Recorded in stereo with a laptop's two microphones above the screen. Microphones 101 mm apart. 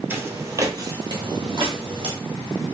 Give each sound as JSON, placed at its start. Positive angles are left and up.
{"t": 0.1, "sound": "footsteps", "side_deg": -20, "distance_m": 1.1}